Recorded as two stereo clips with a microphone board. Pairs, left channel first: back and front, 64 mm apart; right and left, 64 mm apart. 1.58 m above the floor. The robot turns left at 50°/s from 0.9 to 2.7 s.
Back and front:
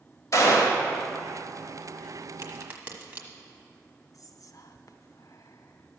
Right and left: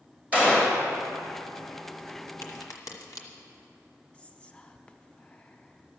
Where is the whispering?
160° right, 0.8 m.